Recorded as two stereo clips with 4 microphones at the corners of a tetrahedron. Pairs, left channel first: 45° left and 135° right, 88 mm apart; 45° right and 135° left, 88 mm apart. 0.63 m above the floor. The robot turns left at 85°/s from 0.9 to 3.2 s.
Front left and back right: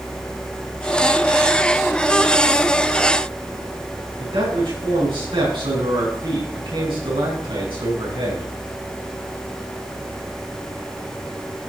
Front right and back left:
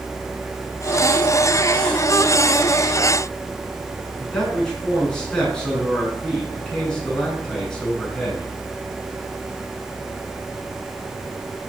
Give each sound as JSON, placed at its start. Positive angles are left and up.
{"t": 4.2, "sound": "a man speaking", "azimuth_deg": -125, "distance_m": 8.0}